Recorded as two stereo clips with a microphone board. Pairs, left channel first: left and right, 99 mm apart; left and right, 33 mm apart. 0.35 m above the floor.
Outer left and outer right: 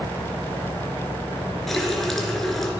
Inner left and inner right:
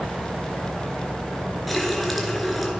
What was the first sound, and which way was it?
A running tap, centre (ahead or behind).